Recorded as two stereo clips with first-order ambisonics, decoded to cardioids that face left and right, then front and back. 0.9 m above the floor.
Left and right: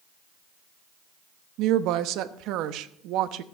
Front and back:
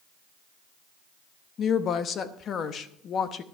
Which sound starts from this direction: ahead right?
A woman speaking, at 1.6 s.